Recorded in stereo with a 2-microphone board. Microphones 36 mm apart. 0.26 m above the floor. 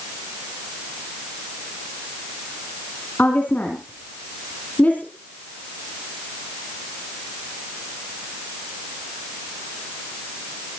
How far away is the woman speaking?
About 3 m.